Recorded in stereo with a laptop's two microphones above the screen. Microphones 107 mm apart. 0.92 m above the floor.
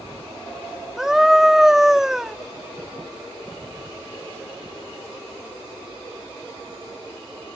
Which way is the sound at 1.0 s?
5° right (ahead or behind).